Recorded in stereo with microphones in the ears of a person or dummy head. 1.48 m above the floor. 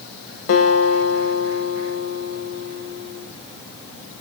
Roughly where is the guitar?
Left.